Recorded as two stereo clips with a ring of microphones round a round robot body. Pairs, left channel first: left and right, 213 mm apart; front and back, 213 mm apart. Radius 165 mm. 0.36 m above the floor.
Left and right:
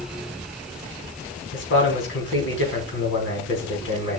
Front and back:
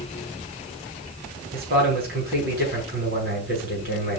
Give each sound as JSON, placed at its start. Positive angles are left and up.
{"t": 1.5, "sound": "a man speaking", "azimuth_deg": 130, "distance_m": 4.0}